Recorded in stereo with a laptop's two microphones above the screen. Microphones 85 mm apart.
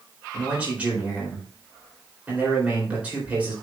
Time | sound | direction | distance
0.3 | a man speaking | 15° right (ahead or behind) | 4 m